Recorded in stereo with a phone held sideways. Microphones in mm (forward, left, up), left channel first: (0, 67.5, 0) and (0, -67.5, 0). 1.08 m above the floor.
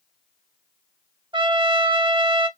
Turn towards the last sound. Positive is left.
turn(degrees=-35)  # may be behind; listen again after turning